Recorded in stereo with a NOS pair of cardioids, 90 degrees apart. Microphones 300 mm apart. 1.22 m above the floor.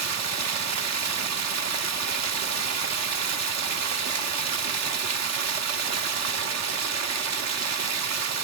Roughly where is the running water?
Ahead right.